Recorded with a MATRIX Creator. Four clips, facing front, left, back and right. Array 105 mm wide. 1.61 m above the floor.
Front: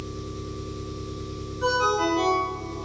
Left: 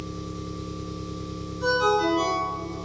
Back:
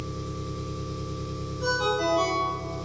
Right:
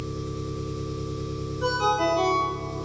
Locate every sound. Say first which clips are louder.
0.0 s an engine running: right 2 dB, even; 160° right, 1.1 m
1.6 s a ringtone: left 2 dB, front 3 dB; 50° right, 1.2 m